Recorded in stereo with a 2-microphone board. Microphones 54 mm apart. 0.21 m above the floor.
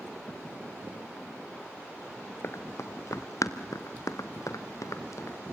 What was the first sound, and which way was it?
Running footsteps, 55° left (ahead or behind).